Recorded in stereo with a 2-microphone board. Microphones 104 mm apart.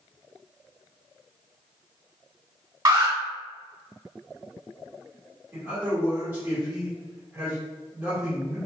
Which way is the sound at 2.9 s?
40° right (ahead or behind).